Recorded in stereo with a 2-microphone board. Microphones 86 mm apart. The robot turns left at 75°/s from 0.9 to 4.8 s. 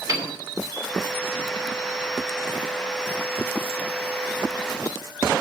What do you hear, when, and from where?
0.1 s a piano: 40° right (ahead or behind), 2.5 m